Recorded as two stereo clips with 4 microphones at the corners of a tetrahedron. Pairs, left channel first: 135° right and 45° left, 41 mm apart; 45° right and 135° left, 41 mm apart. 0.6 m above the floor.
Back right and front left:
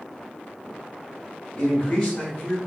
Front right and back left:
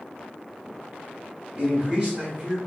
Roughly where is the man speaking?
Behind left.